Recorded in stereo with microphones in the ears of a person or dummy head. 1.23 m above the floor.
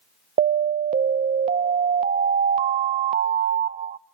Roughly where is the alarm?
Right.